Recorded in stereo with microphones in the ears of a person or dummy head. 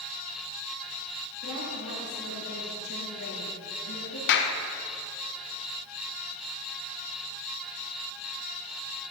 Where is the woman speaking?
85° left, 3 m.